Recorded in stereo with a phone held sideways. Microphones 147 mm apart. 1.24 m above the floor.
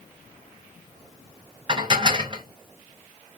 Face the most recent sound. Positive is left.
turn(degrees=-30)  # may be behind; listen again after turning